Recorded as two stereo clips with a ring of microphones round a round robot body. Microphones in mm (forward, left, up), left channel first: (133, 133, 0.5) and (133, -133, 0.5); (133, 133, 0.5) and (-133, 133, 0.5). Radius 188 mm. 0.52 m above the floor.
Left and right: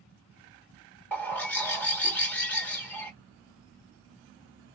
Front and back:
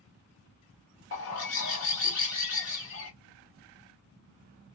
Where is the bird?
5° left, 1.5 m.